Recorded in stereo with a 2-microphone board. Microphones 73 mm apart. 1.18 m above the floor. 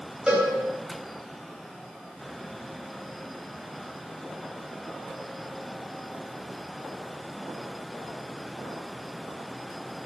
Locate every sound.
0.3 s a cowbell: 10° right (ahead or behind), 4.5 m